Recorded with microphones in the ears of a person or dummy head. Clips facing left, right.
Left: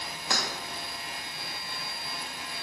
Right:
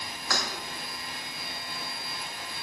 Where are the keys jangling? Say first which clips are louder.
Even; 20° left (ahead or behind), 1.9 m.